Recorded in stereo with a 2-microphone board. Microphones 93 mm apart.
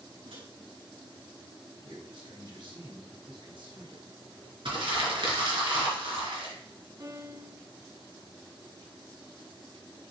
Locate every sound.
0.2 s a microwave: 80° right, 4 m
1.8 s a man speaking: 60° right (ahead or behind), 2.5 m
4.7 s crumpling: 65° right (ahead or behind), 3 m
7.0 s a piano: 40° right (ahead or behind), 1.4 m